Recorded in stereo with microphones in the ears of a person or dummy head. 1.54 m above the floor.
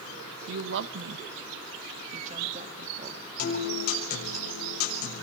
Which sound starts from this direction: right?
A woman speaking, at 0.5 s.